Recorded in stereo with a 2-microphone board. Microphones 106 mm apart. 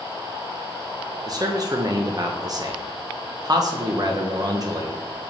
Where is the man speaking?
35° right (ahead or behind), 1.0 m.